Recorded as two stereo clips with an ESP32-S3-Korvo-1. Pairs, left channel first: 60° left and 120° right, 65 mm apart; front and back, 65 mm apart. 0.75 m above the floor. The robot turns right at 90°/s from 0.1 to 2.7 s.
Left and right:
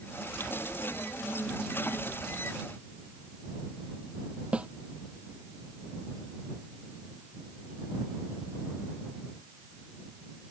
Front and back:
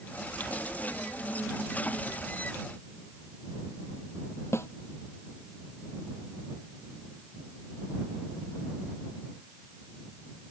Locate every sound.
4.5 s a snare drum: 50° right